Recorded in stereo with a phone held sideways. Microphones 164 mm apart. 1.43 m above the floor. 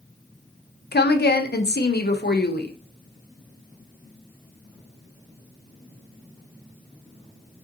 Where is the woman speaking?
85° left, 0.5 m.